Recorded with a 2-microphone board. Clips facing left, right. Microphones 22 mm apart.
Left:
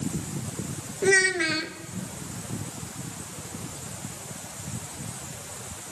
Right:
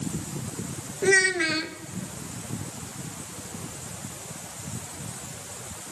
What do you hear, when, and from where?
1.0 s a child speaking: centre (ahead or behind), 0.8 m